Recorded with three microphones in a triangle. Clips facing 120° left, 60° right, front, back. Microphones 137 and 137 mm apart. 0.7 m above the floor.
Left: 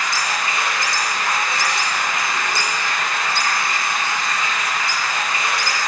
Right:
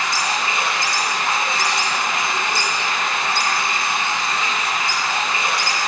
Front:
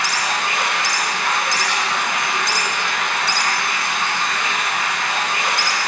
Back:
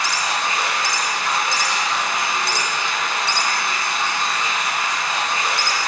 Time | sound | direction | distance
0.0 | running water | straight ahead | 2 m